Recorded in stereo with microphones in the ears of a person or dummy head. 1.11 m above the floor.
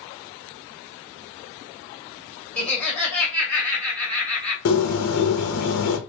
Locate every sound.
2.6 s laughter: centre (ahead or behind), 1.9 m
4.7 s a bird: 60° left (ahead or behind), 0.8 m